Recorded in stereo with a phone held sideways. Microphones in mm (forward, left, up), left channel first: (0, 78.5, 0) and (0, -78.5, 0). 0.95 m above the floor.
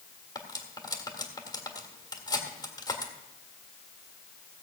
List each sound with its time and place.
0.3 s cutlery clinking: 25° left (ahead or behind), 1.6 m